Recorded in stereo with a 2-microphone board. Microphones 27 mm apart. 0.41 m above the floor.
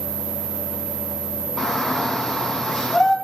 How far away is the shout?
About 4 m.